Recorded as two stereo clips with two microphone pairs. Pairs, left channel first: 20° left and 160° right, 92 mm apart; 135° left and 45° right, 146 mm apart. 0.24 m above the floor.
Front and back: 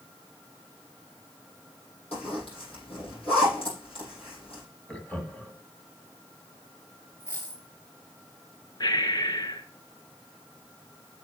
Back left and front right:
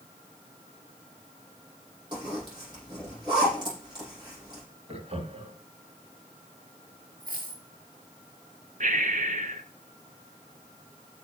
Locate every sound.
2.1 s a zipper: 15° left, 6.5 m
4.9 s laughter: 55° right, 1.8 m
7.2 s a dropped coin: 45° right, 5 m
8.8 s breathing: 20° right, 1.0 m